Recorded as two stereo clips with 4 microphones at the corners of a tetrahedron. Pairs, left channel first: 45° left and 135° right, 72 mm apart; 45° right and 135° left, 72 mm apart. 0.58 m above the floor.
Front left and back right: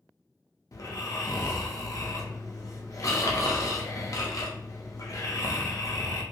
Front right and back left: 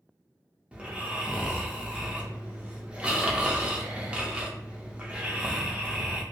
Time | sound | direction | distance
0.7 | snoring | 65° left | 0.6 m